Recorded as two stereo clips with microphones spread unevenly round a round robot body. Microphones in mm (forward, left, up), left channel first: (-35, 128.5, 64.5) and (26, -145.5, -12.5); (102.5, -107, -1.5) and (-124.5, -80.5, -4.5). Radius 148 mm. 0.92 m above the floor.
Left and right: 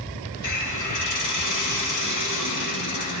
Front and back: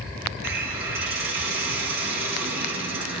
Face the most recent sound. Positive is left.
turn(degrees=120)